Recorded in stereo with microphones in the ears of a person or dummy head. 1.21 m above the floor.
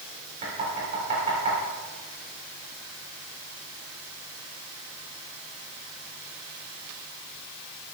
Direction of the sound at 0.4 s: 35° right (ahead or behind).